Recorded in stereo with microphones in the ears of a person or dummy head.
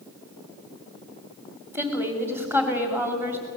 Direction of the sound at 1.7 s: 15° right (ahead or behind).